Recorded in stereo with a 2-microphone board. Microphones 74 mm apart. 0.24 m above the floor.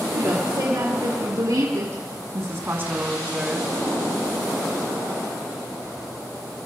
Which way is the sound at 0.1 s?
65° right (ahead or behind).